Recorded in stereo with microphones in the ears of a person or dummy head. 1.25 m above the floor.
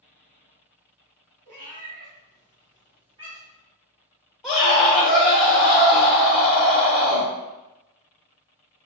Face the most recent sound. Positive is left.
turn(degrees=15)  # may be behind; listen again after turning